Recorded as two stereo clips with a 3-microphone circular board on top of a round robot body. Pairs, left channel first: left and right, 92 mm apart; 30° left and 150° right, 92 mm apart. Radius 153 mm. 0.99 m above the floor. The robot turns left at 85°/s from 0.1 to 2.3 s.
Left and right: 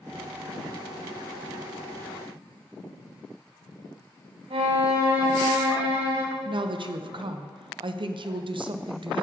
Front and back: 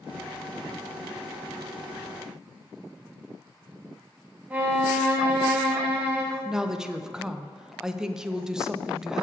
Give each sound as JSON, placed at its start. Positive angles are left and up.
{"t": 4.5, "sound": "a violin", "azimuth_deg": -75, "distance_m": 1.8}
{"t": 6.5, "sound": "a woman speaking", "azimuth_deg": -65, "distance_m": 0.7}